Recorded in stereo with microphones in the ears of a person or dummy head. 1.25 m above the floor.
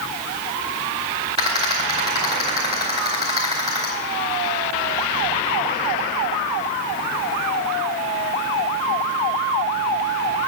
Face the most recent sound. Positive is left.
turn(degrees=-25)  # may be behind; listen again after turning